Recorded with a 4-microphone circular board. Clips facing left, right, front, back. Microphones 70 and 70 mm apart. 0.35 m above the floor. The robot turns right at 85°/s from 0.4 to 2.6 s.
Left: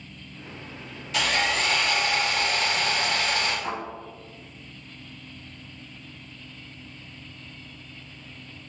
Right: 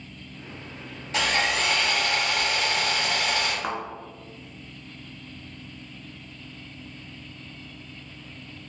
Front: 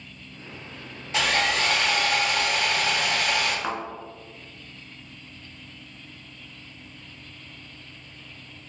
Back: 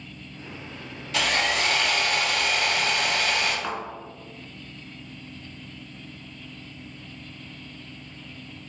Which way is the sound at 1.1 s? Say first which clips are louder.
Even, front 1 dB; 55° right.